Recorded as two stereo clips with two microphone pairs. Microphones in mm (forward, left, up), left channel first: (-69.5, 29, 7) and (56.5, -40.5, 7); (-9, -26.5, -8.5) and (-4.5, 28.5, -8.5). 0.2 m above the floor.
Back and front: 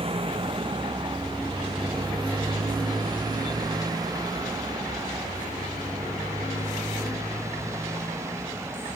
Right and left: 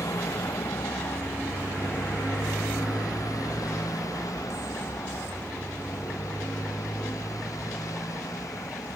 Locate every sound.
0.0 s a motorcycle: 80° right; by 9.0 s 100° right